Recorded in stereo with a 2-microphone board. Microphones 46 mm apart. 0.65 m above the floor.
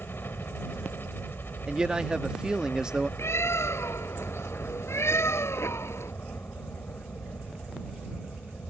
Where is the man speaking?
15° right (ahead or behind).